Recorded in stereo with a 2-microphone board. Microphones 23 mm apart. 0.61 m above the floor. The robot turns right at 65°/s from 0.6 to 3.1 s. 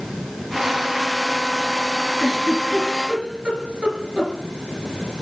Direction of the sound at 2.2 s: 70° right (ahead or behind).